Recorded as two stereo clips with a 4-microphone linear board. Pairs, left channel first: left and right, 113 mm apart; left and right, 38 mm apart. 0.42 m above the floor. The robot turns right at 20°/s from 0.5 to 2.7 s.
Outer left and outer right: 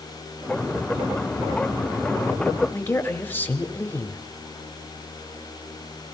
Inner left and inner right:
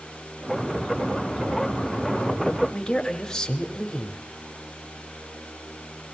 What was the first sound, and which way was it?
A man speaking, 15° left (ahead or behind).